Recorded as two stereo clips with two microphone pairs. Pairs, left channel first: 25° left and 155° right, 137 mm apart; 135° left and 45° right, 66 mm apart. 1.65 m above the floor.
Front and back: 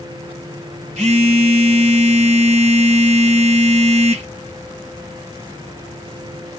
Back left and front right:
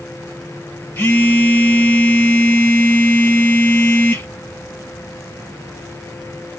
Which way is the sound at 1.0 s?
175° right.